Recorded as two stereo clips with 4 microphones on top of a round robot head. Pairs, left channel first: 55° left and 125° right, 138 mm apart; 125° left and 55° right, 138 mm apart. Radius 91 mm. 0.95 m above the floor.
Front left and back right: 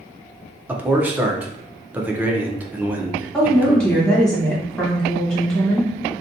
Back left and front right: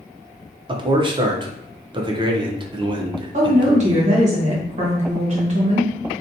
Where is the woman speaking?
30° right, 1.3 m.